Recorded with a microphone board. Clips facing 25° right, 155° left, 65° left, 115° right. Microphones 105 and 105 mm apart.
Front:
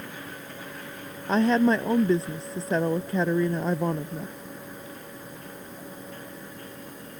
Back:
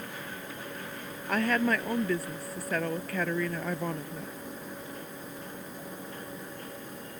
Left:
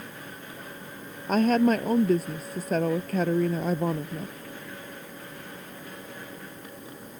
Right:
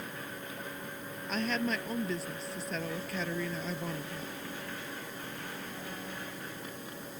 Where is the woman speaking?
40° left.